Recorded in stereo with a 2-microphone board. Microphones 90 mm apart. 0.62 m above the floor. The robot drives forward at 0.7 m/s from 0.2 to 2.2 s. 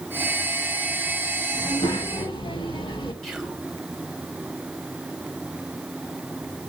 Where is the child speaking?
80° left, 4.5 m; by 3.1 s 75° left (ahead or behind), 4.5 m.